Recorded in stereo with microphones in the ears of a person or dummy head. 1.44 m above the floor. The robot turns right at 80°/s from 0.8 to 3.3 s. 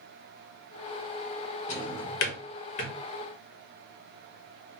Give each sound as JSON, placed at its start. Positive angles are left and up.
{"t": 1.7, "sound": "a drawer", "side_deg": 40, "distance_m": 1.1}